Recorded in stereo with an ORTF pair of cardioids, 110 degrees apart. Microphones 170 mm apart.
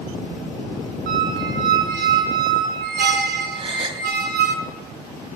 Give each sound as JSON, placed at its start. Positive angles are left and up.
{"t": 1.1, "sound": "a squeak", "azimuth_deg": -65, "distance_m": 6.5}
{"t": 3.5, "sound": "a gasp", "azimuth_deg": -30, "distance_m": 3.5}